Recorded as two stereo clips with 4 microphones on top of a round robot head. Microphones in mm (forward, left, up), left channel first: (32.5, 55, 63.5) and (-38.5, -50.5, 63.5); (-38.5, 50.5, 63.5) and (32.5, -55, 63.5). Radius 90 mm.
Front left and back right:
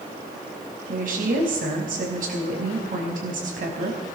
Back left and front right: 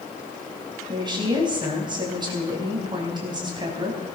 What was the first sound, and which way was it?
A woman speaking, 110° right.